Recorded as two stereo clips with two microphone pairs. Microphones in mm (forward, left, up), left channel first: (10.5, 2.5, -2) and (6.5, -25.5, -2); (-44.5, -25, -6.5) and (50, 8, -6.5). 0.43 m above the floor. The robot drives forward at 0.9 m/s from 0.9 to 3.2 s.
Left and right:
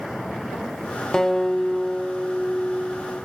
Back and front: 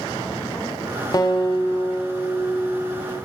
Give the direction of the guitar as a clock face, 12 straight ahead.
7 o'clock.